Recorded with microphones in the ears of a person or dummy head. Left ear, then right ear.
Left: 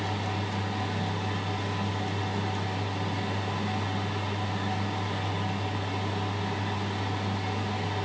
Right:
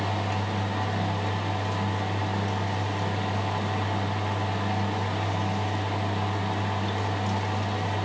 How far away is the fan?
About 1.0 m.